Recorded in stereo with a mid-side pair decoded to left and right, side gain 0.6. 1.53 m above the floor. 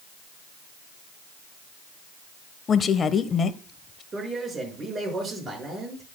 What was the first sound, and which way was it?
A woman speaking, 35° left.